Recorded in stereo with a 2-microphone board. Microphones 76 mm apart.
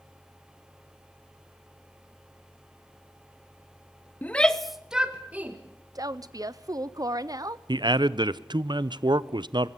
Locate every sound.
4.2 s a shout: 25° left (ahead or behind), 0.8 m; by 5.6 s 20° right (ahead or behind), 1.5 m
6.0 s a woman speaking: 55° right (ahead or behind), 0.6 m
7.7 s a man speaking: 75° right (ahead or behind), 0.6 m